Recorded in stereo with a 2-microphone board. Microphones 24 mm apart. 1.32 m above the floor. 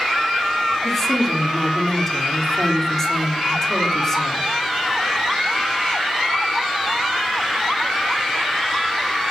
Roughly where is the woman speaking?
Centre.